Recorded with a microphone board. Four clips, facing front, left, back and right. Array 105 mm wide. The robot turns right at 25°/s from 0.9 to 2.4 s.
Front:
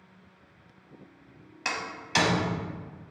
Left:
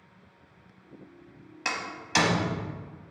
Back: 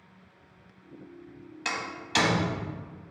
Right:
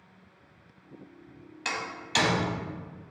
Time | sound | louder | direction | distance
1.6 | a door slam | left 1 dB, even | 50° left | 0.7 m